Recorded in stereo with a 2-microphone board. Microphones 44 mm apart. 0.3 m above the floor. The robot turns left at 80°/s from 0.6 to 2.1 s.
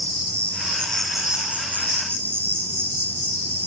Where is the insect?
40° left, 2.5 m; by 3.7 s 80° right, 2.5 m.